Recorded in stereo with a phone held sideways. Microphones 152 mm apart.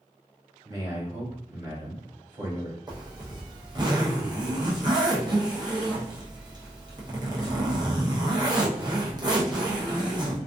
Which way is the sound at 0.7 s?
30° right (ahead or behind).